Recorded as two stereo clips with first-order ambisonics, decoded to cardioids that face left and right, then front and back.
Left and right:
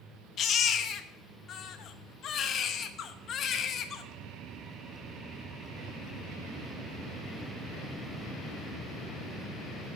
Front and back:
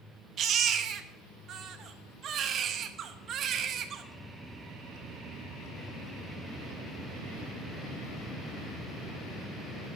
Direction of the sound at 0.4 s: 135° left.